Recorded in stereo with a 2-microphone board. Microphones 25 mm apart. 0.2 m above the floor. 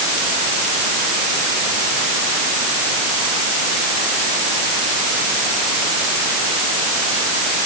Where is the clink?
No clink in this recording.